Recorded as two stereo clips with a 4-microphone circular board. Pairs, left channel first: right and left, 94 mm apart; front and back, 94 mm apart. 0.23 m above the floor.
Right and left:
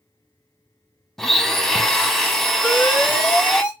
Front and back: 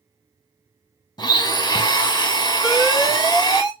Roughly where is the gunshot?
No gunshot in this recording.